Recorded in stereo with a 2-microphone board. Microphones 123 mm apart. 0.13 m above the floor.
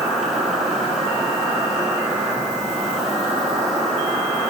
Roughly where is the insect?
Centre.